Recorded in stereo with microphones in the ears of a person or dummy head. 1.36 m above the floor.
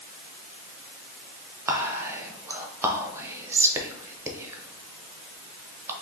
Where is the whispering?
20° right (ahead or behind), 0.6 m.